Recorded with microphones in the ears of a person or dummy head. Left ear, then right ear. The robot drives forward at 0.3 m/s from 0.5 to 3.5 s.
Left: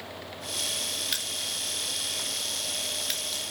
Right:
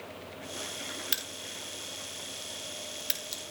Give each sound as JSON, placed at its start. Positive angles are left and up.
{"t": 1.1, "sound": "a crack", "side_deg": 0, "distance_m": 2.0}